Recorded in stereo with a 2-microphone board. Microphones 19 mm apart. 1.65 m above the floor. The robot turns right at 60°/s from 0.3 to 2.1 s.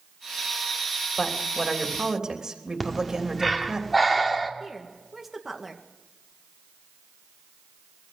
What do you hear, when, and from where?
1.2 s a woman speaking: 160° left, 3 m; by 3.8 s 145° right, 3 m
2.8 s breathing: centre (ahead or behind), 1.7 m
4.6 s a woman speaking: 10° right (ahead or behind), 2 m